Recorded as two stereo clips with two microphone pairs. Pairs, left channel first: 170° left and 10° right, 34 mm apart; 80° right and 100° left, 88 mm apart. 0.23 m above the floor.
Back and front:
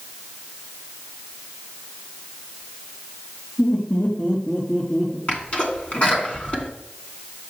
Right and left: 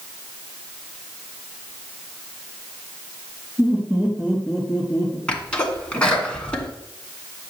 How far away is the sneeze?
About 2.5 m.